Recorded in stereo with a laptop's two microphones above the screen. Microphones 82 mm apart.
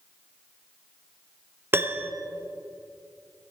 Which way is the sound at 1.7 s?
25° right (ahead or behind).